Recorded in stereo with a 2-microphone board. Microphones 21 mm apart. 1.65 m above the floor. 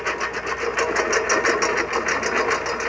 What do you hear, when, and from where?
0.0 s a lawn mower: centre (ahead or behind); by 2.9 s 5° right (ahead or behind)